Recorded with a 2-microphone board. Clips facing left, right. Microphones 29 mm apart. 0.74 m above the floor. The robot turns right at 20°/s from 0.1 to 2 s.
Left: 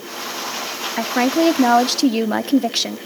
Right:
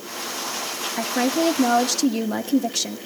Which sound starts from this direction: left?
A woman speaking, at 1.0 s.